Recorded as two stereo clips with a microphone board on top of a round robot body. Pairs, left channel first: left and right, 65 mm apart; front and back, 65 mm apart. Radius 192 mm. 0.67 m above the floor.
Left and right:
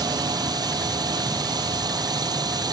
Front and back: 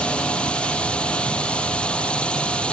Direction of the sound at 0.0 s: 75° right.